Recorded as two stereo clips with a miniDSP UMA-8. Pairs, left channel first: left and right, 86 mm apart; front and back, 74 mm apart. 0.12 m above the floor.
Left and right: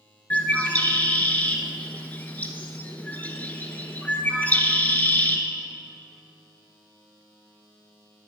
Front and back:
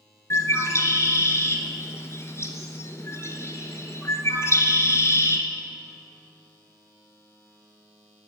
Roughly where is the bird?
Ahead left.